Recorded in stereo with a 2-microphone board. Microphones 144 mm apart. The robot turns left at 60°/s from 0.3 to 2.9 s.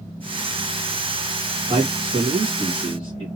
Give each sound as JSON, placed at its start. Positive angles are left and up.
{"t": 1.7, "sound": "a man speaking", "azimuth_deg": -45, "distance_m": 2.0}